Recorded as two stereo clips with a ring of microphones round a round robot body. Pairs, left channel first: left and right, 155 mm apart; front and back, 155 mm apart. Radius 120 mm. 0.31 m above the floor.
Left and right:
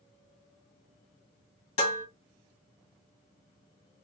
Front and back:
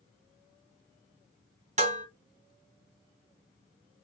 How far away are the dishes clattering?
About 1.7 m.